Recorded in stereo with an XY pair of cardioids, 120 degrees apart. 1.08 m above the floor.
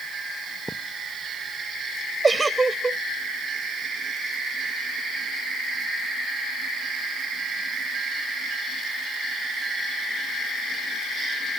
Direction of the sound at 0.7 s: Straight ahead.